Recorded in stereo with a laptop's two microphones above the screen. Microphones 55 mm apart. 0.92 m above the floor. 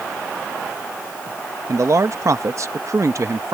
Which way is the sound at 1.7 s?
55° right (ahead or behind).